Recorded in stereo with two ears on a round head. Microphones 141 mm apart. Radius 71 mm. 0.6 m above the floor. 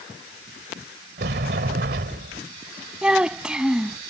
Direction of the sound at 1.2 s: 70° right (ahead or behind).